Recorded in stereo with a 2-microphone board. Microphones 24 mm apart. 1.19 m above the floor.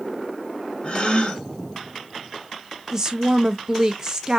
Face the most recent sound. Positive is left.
turn(degrees=-20)  # may be behind; listen again after turning